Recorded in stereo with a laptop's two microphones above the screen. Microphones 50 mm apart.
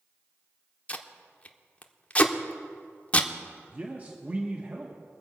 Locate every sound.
0.9 s tape being pulled: 30° left (ahead or behind), 0.9 m
3.7 s a man speaking: 35° right (ahead or behind), 0.9 m